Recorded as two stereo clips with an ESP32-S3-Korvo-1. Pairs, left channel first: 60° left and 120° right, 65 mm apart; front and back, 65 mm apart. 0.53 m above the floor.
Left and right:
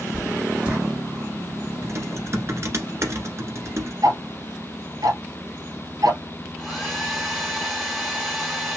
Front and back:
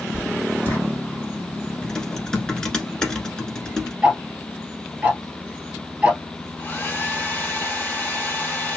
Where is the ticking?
105° right, 1.4 m.